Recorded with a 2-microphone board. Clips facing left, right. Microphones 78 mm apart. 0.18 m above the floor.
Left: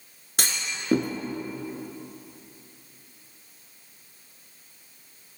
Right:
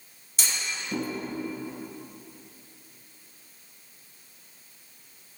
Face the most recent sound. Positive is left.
turn(degrees=65)  # may be behind; listen again after turning